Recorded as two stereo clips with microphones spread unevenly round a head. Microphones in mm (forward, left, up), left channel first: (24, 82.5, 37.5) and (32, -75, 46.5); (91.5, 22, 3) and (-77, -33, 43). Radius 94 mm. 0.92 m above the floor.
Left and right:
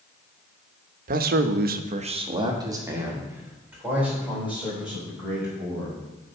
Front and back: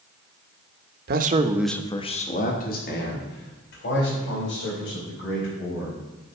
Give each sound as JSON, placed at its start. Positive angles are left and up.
{"t": 1.1, "sound": "a man speaking", "azimuth_deg": -125, "distance_m": 0.9}